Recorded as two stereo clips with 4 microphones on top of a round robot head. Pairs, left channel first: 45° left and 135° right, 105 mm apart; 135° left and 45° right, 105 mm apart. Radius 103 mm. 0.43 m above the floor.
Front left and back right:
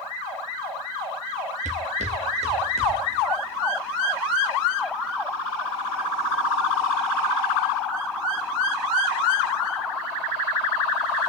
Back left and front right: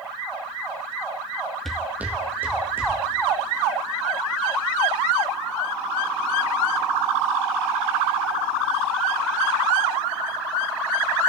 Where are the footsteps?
140° right, 0.5 m; by 3.0 s 115° right, 2.5 m.